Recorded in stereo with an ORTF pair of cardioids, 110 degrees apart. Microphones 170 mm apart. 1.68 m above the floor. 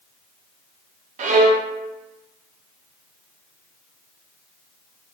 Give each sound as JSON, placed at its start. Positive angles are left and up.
{"t": 1.2, "sound": "a violin", "azimuth_deg": -50, "distance_m": 0.5}